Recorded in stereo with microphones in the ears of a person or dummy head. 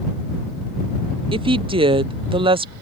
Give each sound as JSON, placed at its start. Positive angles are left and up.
{"t": 1.3, "sound": "a woman speaking", "side_deg": -30}